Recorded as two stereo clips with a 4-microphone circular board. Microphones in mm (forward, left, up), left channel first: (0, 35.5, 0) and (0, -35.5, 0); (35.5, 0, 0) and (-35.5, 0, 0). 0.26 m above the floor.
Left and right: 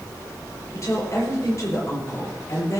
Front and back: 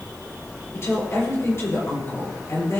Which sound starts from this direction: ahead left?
A woman speaking, at 0.7 s.